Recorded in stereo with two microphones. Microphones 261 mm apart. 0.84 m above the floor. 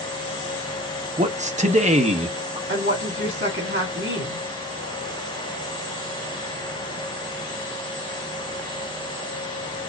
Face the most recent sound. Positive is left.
turn(degrees=-50)  # may be behind; listen again after turning